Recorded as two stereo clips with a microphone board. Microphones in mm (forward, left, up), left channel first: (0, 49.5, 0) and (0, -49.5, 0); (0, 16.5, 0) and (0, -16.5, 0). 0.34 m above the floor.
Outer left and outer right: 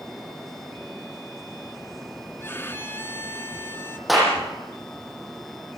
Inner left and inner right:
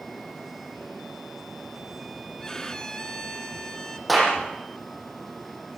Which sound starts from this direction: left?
A violin, at 2.4 s.